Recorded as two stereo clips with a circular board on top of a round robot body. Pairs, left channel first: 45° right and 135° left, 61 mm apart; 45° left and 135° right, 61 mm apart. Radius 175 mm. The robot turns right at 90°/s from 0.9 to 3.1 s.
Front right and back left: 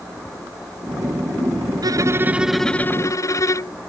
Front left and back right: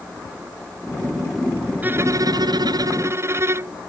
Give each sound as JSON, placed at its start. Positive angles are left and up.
{"t": 1.8, "sound": "a violin", "azimuth_deg": 160}